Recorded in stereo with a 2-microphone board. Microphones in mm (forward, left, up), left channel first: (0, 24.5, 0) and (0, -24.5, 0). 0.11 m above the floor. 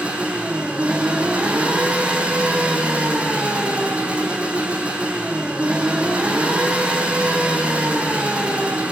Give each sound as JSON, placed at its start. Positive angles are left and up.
{"t": 0.0, "sound": "an engine running", "side_deg": -25, "distance_m": 4.0}